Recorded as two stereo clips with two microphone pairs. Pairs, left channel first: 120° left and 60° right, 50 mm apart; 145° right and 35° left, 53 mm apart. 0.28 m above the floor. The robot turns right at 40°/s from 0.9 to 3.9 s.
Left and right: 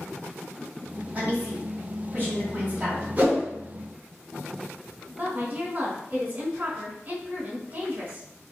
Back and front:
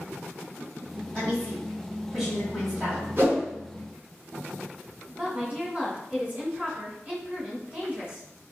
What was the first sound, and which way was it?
A woman speaking, 90° right.